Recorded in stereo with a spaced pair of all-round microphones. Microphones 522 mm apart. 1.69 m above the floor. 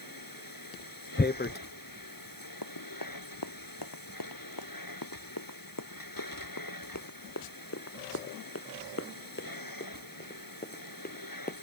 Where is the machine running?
40° left (ahead or behind).